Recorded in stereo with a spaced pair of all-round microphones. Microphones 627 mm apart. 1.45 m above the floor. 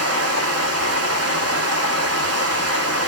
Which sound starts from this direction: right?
Running water, at 0.0 s.